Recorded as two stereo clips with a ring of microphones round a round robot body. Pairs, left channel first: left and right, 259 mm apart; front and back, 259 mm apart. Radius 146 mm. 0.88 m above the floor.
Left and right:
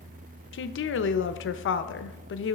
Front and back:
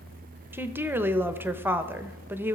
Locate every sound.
0.5 s a woman speaking: 100° left, 0.8 m